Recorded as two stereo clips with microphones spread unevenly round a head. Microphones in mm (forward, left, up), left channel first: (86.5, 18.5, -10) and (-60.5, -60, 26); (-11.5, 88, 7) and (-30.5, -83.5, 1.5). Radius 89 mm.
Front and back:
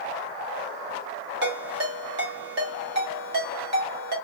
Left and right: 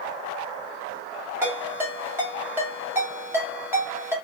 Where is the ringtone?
175° right, 1.6 m.